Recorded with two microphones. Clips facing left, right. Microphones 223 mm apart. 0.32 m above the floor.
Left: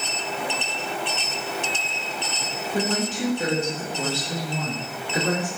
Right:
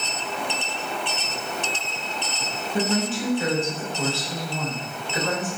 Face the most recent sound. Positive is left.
turn(degrees=30)  # may be behind; listen again after turning